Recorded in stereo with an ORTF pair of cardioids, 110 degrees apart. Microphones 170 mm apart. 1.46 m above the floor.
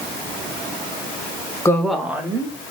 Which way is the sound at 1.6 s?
20° left.